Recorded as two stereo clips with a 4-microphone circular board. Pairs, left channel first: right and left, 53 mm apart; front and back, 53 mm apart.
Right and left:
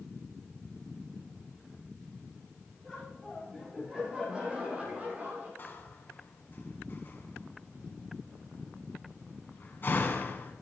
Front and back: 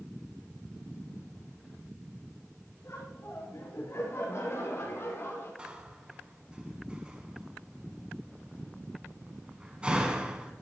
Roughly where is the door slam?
Behind right.